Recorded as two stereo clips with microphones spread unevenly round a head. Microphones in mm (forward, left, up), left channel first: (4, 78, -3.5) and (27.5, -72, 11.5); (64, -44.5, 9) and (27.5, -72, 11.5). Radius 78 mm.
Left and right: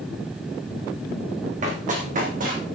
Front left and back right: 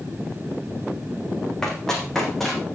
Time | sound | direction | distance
1.6 | running footsteps | 40° right | 4.5 m